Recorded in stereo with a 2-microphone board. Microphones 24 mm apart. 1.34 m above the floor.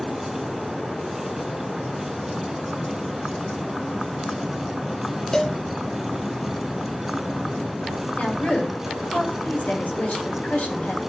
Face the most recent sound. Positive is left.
turn(degrees=85)